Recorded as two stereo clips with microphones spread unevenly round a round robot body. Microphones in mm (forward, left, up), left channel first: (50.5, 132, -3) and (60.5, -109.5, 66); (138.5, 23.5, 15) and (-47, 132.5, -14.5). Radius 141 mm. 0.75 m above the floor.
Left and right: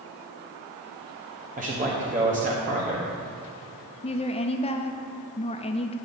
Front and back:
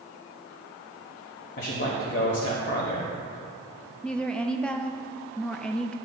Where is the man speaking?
25° right, 1.1 m.